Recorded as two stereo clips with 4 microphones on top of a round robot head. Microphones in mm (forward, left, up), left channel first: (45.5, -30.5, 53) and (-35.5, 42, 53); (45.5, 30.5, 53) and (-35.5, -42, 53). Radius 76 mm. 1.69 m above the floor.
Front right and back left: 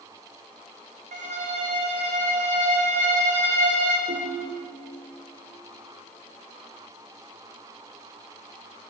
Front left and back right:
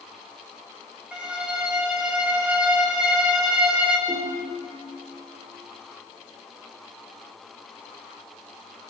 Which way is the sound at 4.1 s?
155° left.